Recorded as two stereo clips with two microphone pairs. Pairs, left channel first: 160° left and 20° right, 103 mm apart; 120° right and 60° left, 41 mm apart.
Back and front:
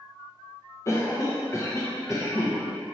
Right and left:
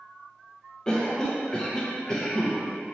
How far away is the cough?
About 0.5 m.